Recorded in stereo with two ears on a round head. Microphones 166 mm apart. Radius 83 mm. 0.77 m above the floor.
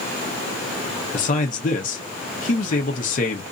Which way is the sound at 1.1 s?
45° left (ahead or behind).